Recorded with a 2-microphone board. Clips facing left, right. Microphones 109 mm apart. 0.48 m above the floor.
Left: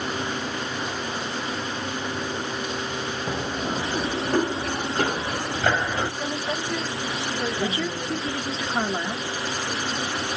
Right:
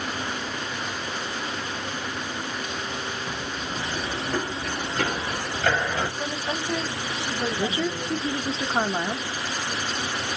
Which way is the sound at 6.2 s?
30° right (ahead or behind).